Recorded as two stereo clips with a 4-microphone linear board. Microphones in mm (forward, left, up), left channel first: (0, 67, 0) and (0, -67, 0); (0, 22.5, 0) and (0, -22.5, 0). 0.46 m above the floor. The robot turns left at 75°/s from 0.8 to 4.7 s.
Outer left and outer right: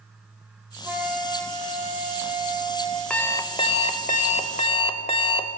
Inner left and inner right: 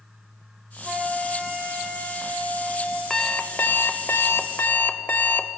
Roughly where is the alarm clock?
Behind.